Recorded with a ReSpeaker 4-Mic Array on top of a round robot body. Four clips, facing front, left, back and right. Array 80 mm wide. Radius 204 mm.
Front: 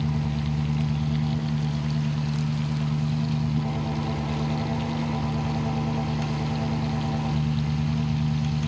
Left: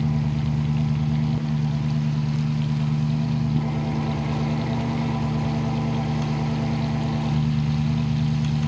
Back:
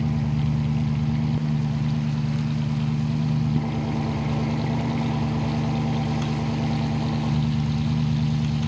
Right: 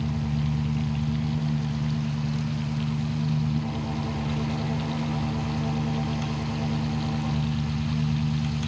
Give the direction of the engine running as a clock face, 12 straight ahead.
7 o'clock.